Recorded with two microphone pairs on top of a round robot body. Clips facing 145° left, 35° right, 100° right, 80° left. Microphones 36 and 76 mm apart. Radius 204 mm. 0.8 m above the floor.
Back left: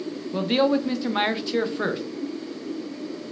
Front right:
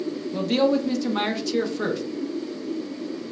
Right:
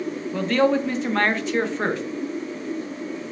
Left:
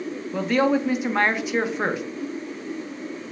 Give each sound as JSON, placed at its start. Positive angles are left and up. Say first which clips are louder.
{"t": 0.3, "sound": "a man speaking", "louder": "even, right 1 dB", "azimuth_deg": 150, "distance_m": 0.8}